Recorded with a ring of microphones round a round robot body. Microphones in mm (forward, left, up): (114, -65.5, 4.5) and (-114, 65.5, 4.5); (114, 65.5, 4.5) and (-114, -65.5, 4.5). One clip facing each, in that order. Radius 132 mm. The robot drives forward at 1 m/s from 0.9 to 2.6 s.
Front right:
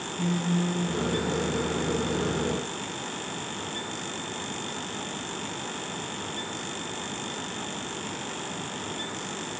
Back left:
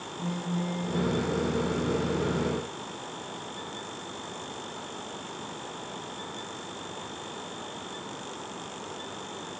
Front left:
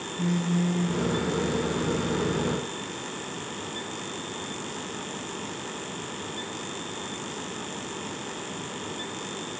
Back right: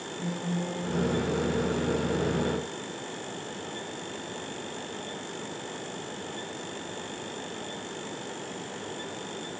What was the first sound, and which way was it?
A phone buzzing, straight ahead.